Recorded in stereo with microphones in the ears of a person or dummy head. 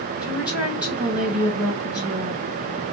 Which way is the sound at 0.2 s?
10° right (ahead or behind).